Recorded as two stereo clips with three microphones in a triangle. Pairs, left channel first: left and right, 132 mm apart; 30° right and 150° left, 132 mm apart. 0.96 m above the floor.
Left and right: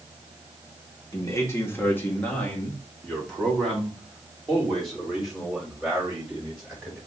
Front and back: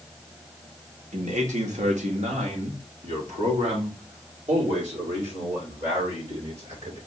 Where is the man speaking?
150° left, 1.2 m; by 7.0 s 175° right, 4 m.